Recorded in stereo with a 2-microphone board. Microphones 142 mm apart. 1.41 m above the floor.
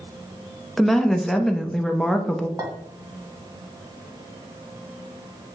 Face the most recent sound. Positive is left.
turn(degrees=-20)  # may be behind; listen again after turning